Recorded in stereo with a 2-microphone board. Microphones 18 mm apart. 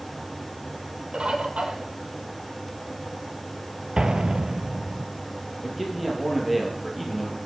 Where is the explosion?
50° right (ahead or behind), 0.6 m.